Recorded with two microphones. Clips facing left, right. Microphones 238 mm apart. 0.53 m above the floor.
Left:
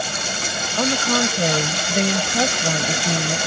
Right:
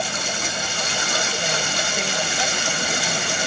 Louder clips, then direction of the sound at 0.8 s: Left 12 dB; 70° left (ahead or behind).